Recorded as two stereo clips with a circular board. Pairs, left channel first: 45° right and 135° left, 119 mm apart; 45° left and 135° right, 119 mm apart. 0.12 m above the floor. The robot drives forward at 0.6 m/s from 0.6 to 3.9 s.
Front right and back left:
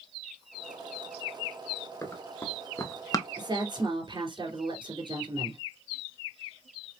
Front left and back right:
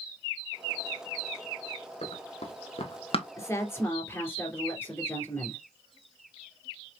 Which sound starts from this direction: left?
A woman speaking, at 3.4 s.